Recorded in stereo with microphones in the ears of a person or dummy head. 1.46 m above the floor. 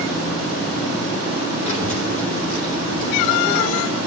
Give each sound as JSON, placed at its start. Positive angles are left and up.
{"t": 1.7, "sound": "a child speaking", "side_deg": 40, "distance_m": 4.0}